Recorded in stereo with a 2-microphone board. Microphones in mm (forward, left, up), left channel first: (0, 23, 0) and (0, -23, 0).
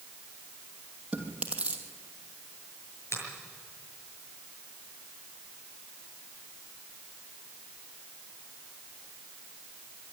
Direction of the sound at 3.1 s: 70° left (ahead or behind).